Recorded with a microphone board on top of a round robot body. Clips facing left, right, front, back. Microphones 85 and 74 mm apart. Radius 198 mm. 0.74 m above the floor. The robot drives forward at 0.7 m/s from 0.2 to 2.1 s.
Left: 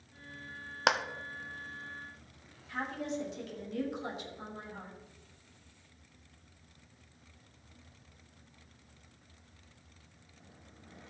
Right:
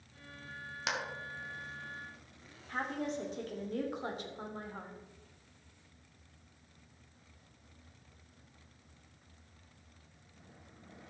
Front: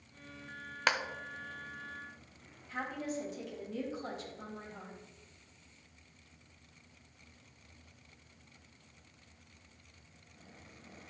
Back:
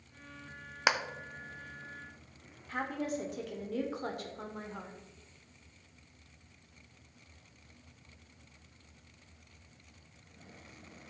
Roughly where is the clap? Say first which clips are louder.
Left 9 dB, back 2 dB; left.